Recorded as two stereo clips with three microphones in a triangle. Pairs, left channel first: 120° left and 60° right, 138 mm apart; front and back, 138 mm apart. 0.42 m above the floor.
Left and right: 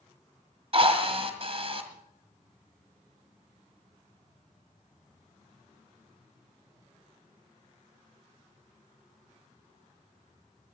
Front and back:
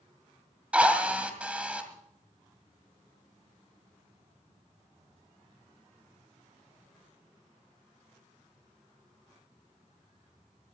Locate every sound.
0.7 s a drill: 100° right, 2 m